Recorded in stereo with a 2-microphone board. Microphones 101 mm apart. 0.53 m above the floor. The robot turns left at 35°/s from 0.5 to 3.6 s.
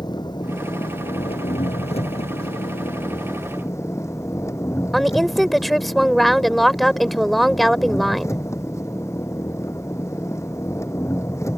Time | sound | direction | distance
0.0 | an engine running | 135° left | ?
4.9 | a woman speaking | centre (ahead or behind) | ?